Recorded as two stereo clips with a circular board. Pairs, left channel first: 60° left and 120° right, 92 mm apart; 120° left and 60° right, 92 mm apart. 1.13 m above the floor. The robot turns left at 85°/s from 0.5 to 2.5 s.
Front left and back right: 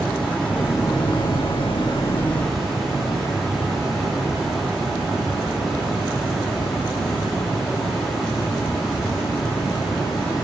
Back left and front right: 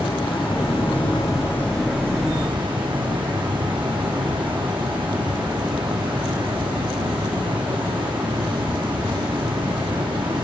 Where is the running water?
140° left, 5.5 m; by 10.4 s 30° right, 5.5 m.